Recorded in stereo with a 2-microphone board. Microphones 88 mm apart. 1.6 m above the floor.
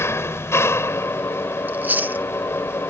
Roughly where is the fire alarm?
No fire alarm in this recording.